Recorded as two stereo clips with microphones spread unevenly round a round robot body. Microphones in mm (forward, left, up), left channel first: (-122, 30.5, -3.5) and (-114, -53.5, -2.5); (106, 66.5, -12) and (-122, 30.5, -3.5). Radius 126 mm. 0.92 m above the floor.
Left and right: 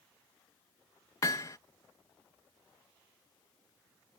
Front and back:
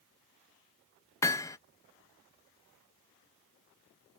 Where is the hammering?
75° left.